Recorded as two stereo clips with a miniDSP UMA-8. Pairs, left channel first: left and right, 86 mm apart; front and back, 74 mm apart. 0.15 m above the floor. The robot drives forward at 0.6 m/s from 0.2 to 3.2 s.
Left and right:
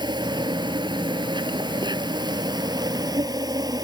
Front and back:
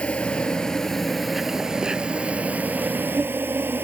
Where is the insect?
75° right; by 3.9 s 120° right.